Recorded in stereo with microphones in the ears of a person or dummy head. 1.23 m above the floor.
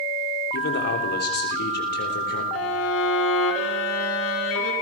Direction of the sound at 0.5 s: 55° left (ahead or behind).